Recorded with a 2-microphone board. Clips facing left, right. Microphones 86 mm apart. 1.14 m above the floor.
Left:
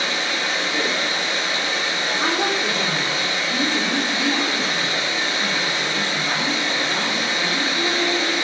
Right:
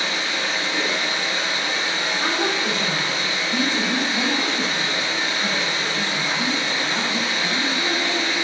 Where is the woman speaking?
45° left (ahead or behind), 3 m.